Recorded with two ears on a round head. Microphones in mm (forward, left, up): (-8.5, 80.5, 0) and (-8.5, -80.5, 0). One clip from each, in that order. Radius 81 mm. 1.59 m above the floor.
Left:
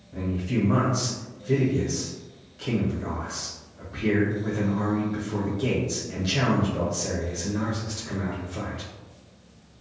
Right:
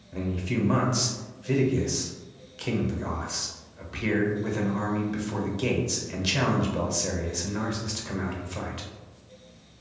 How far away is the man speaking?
About 0.7 m.